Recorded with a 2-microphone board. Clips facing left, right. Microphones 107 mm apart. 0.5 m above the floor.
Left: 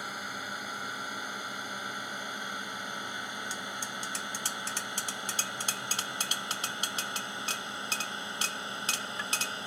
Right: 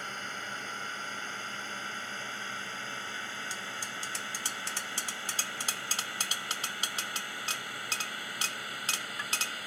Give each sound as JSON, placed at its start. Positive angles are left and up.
{"t": 0.0, "sound": "a drone", "side_deg": 10}